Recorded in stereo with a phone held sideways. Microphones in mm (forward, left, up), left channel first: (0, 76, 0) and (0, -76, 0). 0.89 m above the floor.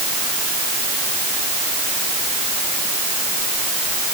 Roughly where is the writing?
I don't hear writing.